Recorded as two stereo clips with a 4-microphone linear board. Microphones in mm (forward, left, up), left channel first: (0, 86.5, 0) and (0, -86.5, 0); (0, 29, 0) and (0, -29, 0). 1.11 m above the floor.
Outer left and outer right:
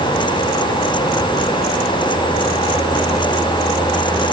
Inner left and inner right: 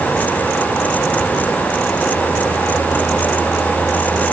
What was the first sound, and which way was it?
Only background noise.